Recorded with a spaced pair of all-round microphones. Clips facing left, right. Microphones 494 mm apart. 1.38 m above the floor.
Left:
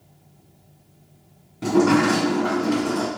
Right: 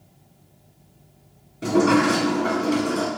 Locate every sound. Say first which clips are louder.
1.6 s a sliding door: left 1 dB; 15° left (ahead or behind), 0.8 m